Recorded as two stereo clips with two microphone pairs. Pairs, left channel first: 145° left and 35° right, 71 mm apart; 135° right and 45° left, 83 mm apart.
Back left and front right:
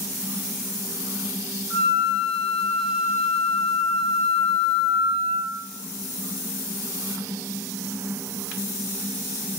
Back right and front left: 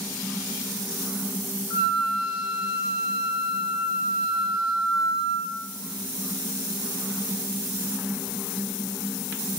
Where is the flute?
145° right, 1.5 m.